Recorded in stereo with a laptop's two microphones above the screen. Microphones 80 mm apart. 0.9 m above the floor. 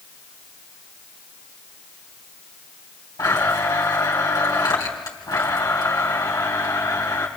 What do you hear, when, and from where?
3.2 s a blender: 50° left (ahead or behind), 3 m